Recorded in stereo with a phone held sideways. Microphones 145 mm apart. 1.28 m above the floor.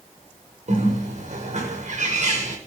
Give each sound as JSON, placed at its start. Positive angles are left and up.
{"t": 0.7, "sound": "a bird", "side_deg": -55, "distance_m": 6.5}